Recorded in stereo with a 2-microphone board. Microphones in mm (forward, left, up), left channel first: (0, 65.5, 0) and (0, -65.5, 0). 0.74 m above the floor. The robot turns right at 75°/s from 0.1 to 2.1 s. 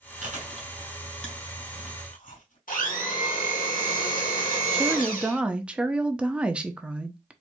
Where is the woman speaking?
5° right (ahead or behind), 0.6 m.